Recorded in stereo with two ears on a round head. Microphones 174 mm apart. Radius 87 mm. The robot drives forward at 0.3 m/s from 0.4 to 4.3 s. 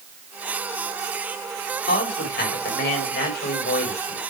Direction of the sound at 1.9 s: 55° left (ahead or behind).